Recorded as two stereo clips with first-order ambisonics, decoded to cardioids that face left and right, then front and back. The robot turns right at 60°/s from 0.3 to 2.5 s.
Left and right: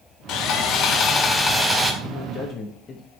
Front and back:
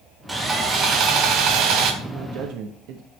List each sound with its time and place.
0.3 s sawing: 100° left, 1.1 m; by 1.9 s 165° right, 1.1 m
2.0 s a man speaking: 125° left, 0.9 m; by 3.0 s 155° left, 0.9 m